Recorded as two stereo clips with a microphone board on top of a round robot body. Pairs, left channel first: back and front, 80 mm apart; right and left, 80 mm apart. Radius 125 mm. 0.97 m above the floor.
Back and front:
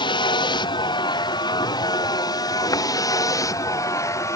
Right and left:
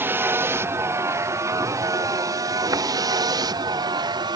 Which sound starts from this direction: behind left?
A vehicle, at 0.0 s.